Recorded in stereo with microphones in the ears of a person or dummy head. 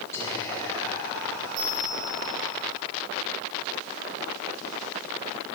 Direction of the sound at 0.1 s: 15° left (ahead or behind).